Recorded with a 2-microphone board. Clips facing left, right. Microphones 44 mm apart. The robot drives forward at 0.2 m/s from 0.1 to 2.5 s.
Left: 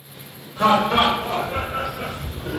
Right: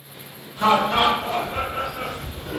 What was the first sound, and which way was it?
Laughter, 80° left.